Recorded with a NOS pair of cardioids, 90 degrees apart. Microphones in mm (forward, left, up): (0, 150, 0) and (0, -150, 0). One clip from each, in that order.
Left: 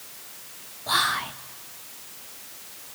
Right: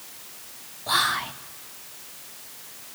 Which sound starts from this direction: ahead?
Whispering, at 0.9 s.